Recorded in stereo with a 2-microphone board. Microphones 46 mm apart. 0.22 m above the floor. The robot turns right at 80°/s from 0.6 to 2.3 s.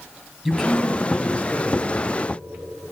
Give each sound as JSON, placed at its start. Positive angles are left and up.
{"t": 0.5, "sound": "a man speaking", "azimuth_deg": -5, "distance_m": 1.6}